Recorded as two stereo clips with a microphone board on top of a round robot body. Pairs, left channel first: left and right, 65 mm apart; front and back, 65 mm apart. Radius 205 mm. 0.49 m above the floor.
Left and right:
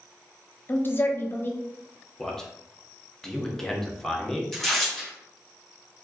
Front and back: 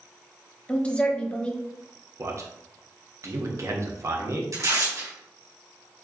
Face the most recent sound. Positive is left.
turn(degrees=175)